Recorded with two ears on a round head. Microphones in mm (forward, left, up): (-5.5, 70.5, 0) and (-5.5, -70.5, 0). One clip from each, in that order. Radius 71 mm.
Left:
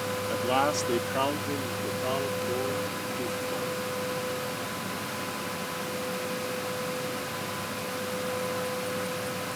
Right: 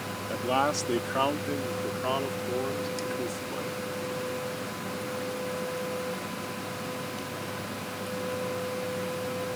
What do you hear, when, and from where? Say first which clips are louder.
0.3 s a man speaking: even; 10° left (ahead or behind); by 4.0 s 40° right (ahead or behind)